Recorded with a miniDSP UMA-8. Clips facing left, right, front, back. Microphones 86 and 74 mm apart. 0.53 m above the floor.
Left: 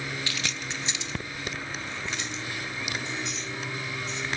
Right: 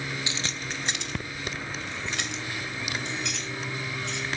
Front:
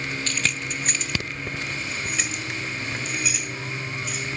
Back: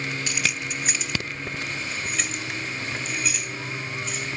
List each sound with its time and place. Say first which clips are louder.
0.3 s keys jangling: even, even; 120° right, 0.5 m; by 4.3 s 85° right, 3.5 m